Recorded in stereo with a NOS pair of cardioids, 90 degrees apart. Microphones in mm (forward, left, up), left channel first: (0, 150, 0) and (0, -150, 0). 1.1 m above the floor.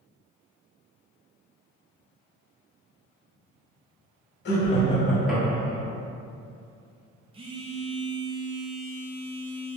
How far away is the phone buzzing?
About 0.6 m.